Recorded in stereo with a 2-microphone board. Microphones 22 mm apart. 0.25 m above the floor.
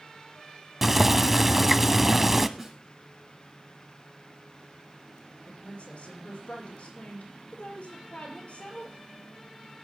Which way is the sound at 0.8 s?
10° right (ahead or behind).